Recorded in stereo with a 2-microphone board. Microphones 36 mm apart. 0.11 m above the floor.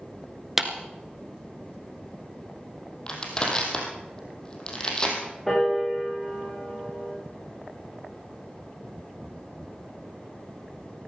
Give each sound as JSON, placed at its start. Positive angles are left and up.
{"t": 0.6, "sound": "a clap", "side_deg": -5, "distance_m": 1.3}
{"t": 3.1, "sound": "crushing", "side_deg": 25, "distance_m": 3.5}
{"t": 5.5, "sound": "a piano", "side_deg": 5, "distance_m": 8.0}